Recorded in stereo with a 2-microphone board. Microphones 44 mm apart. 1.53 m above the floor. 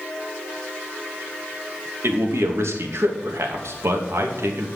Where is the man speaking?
70° right (ahead or behind), 2.5 m.